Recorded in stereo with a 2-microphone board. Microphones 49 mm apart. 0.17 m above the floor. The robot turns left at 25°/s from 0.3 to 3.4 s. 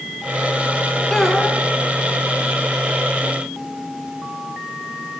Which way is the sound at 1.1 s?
5° left (ahead or behind).